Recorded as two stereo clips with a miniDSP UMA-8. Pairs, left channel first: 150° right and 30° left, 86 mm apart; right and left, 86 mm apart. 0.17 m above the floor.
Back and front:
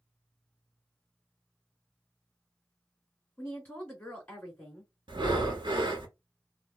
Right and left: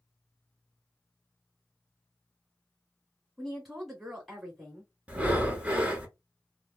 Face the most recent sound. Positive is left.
turn(degrees=15)